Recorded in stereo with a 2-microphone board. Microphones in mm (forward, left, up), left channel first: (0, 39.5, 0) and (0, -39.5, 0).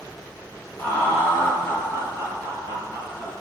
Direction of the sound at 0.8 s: 20° left (ahead or behind).